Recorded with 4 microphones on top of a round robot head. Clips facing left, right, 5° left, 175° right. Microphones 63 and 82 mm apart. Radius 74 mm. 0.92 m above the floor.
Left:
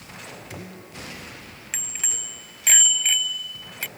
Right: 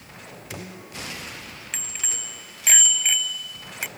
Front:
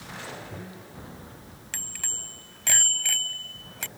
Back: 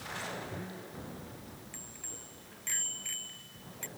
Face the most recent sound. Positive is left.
turn(degrees=-20)